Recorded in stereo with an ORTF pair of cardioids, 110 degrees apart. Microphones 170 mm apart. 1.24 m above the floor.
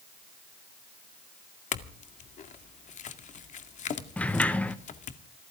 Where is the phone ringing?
No phone ringing in this recording.